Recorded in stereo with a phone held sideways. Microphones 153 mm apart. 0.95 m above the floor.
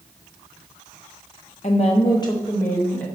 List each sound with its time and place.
1.6 s a woman speaking: 45° left (ahead or behind), 0.5 m; by 3.1 s 15° left (ahead or behind), 1.1 m